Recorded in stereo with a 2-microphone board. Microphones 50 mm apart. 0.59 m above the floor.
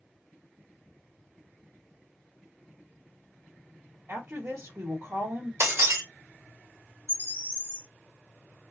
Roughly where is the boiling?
I don't hear boiling.